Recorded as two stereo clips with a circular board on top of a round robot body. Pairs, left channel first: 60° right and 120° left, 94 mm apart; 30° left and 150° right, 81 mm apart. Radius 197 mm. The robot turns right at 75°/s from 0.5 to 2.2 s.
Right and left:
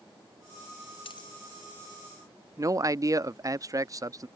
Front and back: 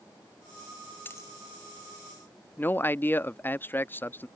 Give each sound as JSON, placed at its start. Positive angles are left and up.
{"t": 1.1, "sound": "a dropped coin", "azimuth_deg": -35}
{"t": 2.6, "sound": "a man speaking", "azimuth_deg": 85}